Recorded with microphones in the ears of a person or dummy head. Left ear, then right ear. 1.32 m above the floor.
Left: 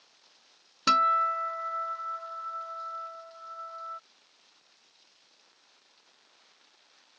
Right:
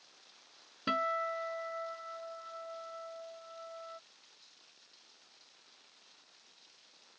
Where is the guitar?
65° left (ahead or behind).